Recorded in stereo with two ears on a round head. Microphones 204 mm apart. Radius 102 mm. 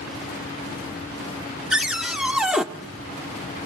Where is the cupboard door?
Centre (ahead or behind), 0.7 m.